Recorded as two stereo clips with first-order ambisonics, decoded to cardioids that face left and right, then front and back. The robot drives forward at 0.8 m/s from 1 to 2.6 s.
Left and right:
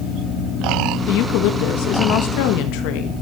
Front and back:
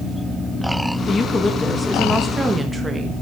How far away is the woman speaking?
About 2.5 m.